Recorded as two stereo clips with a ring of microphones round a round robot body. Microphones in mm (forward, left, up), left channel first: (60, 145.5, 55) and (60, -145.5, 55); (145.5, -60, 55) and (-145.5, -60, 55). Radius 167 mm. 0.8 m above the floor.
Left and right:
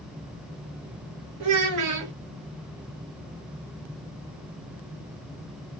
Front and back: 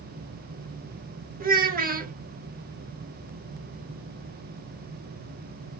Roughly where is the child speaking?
Behind right.